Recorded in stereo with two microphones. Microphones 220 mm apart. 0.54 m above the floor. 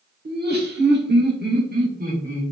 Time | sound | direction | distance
0.2 | laughter | 45° right (ahead or behind) | 1.1 m